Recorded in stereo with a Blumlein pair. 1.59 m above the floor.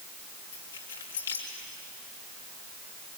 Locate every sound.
0.5 s keys jangling: 65° left, 3.5 m